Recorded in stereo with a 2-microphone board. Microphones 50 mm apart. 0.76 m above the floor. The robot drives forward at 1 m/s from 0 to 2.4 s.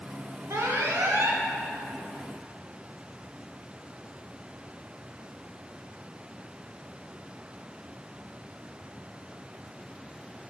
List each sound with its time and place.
0.5 s an alarm: 70° right (ahead or behind), 1.2 m; by 1.4 s 45° right (ahead or behind), 1.6 m